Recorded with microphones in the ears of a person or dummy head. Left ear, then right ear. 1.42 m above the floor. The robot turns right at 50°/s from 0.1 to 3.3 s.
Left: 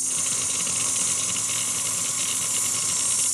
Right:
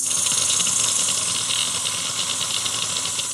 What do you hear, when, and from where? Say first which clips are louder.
0.0 s an insect: right 5 dB; 105° right, 1.4 m; by 3.3 s 55° left, 1.4 m